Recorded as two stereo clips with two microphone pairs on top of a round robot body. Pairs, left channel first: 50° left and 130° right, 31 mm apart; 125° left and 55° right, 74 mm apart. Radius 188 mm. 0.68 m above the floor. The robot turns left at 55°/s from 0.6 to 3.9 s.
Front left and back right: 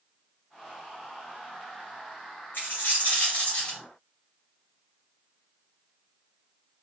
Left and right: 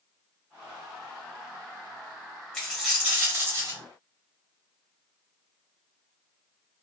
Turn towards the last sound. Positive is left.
turn(degrees=-30)